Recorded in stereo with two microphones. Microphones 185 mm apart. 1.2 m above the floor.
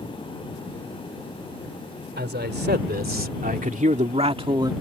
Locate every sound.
2.2 s a man speaking: 65° right (ahead or behind); by 4.7 s 20° right (ahead or behind)